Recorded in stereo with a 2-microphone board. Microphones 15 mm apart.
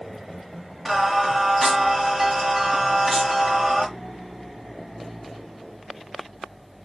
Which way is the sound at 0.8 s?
20° right (ahead or behind).